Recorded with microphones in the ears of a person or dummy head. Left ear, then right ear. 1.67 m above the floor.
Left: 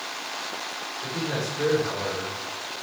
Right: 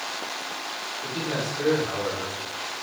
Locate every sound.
1.0 s a man speaking: 30° left (ahead or behind), 6 m